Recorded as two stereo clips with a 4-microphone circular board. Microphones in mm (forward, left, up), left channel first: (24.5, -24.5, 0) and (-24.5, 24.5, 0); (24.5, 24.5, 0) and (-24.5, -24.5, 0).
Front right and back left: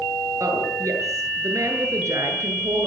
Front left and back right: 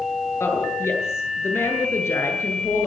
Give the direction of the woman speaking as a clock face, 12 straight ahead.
9 o'clock.